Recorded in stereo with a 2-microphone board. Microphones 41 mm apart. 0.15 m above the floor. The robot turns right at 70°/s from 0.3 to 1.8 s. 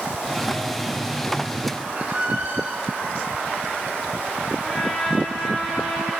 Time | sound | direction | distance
1.9 | a squeak | 30° right (ahead or behind) | 0.9 m
4.6 | a trumpet | centre (ahead or behind) | 2.5 m